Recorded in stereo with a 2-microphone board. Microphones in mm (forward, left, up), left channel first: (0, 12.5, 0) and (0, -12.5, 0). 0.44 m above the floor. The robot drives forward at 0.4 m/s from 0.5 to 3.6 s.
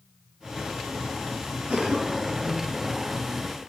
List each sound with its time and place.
1.7 s a cough: 65° right (ahead or behind), 3 m